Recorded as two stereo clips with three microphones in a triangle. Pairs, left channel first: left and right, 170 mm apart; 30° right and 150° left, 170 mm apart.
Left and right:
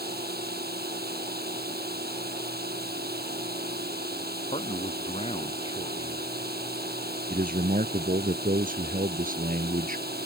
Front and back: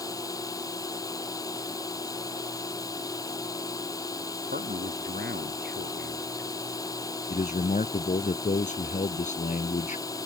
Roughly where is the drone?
Right.